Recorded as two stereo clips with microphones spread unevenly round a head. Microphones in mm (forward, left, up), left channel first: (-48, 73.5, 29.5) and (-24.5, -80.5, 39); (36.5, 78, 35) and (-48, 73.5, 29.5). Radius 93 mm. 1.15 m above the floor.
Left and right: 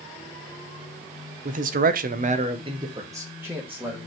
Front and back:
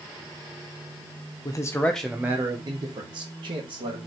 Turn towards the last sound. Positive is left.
turn(degrees=-165)